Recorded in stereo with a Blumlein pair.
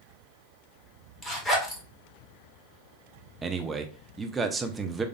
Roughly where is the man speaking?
Ahead.